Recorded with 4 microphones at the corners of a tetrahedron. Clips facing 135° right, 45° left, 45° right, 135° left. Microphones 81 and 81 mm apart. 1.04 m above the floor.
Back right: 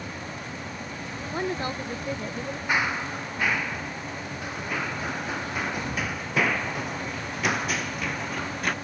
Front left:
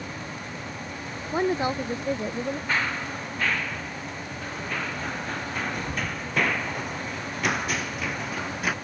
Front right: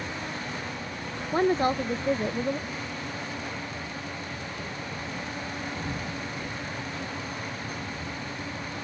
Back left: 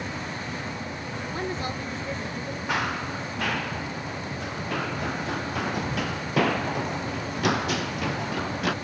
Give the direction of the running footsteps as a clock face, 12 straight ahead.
7 o'clock.